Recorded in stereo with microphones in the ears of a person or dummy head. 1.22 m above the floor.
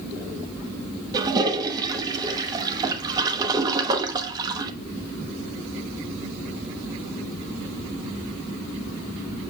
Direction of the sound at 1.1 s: 30° right (ahead or behind).